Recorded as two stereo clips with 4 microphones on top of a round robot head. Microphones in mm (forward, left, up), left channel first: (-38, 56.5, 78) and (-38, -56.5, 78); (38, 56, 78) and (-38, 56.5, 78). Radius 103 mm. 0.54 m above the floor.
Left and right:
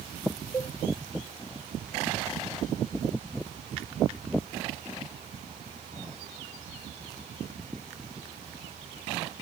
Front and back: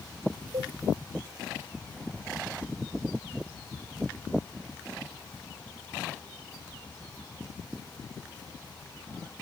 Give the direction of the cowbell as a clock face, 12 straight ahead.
7 o'clock.